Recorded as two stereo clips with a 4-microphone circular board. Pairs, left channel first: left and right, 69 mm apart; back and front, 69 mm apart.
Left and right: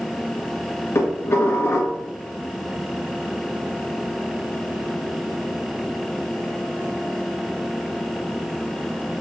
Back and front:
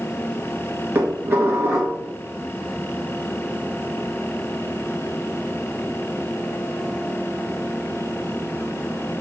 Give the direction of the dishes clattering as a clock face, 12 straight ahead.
10 o'clock.